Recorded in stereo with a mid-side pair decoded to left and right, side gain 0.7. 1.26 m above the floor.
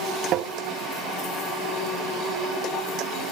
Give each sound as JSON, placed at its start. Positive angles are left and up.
{"t": 0.3, "sound": "tapping", "azimuth_deg": -55, "distance_m": 0.6}